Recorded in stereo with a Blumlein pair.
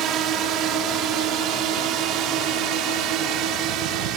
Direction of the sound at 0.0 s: 35° right.